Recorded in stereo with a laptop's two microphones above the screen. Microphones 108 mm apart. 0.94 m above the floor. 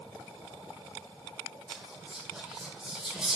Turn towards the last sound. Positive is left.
turn(degrees=-5)  # may be behind; listen again after turning